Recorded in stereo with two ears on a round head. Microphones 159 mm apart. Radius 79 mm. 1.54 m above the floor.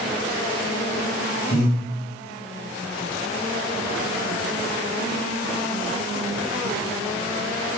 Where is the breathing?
15° right (ahead or behind), 1.6 m.